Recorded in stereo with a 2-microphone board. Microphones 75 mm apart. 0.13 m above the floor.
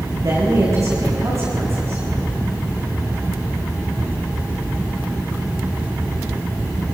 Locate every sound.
0.2 s a man speaking: 55° right (ahead or behind), 8 m; by 2.0 s 40° right (ahead or behind), 9 m